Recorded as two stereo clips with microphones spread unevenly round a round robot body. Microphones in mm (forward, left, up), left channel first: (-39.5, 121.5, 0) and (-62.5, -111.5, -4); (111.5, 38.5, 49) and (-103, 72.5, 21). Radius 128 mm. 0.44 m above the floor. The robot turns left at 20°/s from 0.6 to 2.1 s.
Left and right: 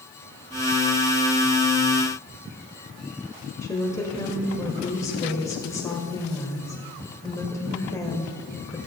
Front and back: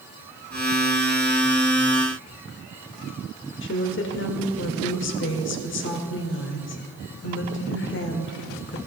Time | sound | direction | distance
3.6 | a woman speaking | 10° left | 1.6 m